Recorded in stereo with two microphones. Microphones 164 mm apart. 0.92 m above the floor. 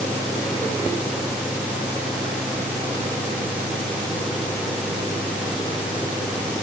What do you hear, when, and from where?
Only background noise.